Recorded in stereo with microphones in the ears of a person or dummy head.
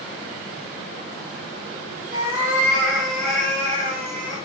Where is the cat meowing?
25° right (ahead or behind), 2.5 m; by 4.4 s 10° left (ahead or behind), 4.5 m.